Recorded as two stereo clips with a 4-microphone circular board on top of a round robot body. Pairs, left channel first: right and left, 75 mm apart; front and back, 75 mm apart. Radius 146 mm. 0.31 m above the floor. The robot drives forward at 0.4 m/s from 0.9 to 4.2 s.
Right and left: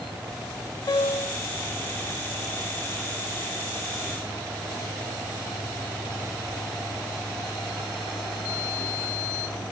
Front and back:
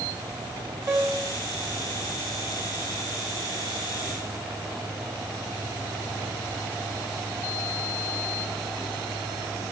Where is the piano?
130° right, 6 m; by 1.4 s 135° right, 6 m.